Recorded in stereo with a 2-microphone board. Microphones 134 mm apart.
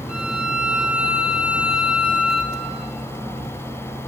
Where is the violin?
5° right (ahead or behind), 1.5 m.